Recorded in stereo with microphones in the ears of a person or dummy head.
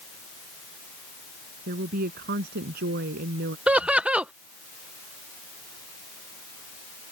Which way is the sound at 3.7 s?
10° right (ahead or behind).